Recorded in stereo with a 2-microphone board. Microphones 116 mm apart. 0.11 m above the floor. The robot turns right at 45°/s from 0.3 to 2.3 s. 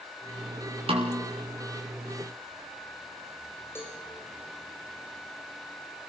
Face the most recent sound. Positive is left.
turn(degrees=20)  # may be behind; listen again after turning